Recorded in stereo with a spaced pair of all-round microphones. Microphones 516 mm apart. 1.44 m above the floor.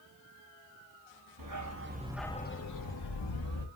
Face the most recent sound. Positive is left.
turn(degrees=60)  # may be behind; listen again after turning